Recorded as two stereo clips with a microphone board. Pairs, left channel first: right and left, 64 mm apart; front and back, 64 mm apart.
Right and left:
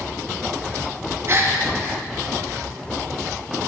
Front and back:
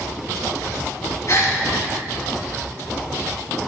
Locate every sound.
1.3 s a gasp: 40° left, 1.7 m